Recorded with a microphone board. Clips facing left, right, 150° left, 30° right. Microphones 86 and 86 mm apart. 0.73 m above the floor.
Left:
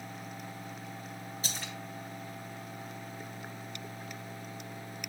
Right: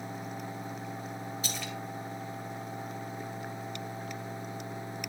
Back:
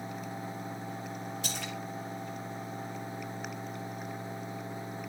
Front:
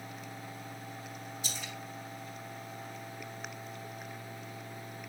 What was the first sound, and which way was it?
A splash, 145° left.